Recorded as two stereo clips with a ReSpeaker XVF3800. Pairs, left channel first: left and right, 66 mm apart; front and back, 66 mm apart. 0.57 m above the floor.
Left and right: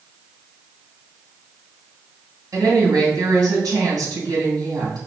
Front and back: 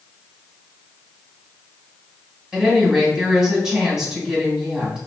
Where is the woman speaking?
100° right, 1.9 m.